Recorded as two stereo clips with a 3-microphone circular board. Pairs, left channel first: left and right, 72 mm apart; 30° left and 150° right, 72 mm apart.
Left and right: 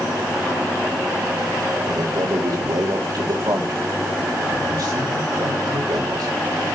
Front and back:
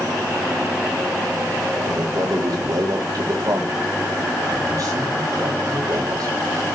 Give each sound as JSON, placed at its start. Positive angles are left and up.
{"t": 1.9, "sound": "a man speaking", "azimuth_deg": -115, "distance_m": 3.5}